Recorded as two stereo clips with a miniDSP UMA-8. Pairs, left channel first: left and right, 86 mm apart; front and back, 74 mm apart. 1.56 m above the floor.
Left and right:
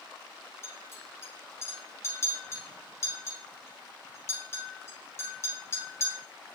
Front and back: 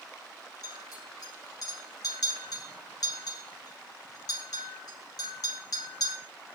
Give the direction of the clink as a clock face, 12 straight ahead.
11 o'clock.